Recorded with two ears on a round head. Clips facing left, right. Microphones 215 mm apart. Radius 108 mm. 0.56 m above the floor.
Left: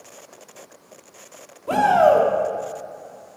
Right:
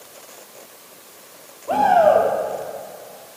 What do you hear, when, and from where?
1.7 s a shout: 30° left (ahead or behind), 1.1 m